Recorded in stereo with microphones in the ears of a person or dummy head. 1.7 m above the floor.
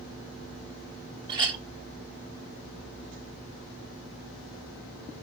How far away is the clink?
About 0.7 m.